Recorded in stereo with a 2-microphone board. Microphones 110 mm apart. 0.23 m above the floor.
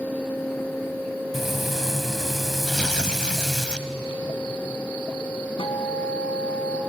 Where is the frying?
5° right (ahead or behind), 1.7 m.